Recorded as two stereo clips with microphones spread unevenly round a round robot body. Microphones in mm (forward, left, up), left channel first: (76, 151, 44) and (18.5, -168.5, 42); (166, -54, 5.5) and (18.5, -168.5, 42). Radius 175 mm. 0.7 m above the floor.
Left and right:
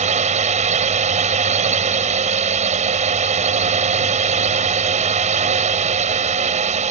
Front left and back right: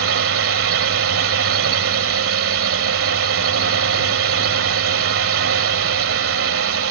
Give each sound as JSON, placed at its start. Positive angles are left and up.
{"t": 0.0, "sound": "a drone", "azimuth_deg": -170}